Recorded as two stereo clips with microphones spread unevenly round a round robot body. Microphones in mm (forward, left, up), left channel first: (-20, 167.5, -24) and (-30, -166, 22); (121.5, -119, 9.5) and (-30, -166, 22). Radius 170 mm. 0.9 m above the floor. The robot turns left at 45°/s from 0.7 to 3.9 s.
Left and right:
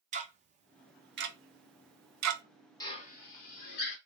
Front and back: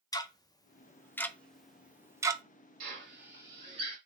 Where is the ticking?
25° right, 0.5 m; by 2.4 s 100° right, 0.5 m.